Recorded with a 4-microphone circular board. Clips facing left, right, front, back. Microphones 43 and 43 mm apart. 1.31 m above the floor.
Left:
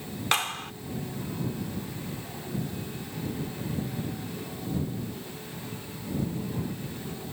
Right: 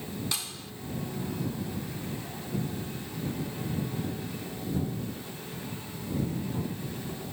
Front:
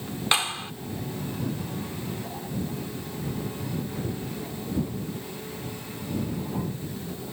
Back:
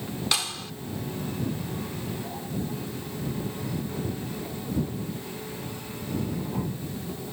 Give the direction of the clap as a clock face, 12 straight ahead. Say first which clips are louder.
Left 10 dB, front 6 dB; 10 o'clock.